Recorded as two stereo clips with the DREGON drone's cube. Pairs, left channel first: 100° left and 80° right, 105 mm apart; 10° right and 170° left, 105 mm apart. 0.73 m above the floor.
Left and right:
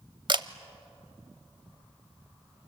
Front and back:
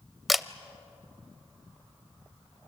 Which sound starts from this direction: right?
A camera shutter, at 0.3 s.